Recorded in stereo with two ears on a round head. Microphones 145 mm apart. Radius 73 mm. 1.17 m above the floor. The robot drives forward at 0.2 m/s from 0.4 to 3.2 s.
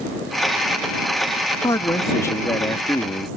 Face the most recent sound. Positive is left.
turn(degrees=15)  # may be behind; listen again after turning